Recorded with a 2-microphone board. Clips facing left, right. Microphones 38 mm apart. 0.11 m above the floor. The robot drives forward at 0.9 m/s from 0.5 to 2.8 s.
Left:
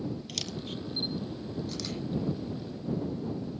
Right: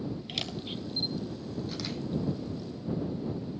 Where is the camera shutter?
25° right (ahead or behind), 0.9 m; by 2.0 s 10° right (ahead or behind), 2 m.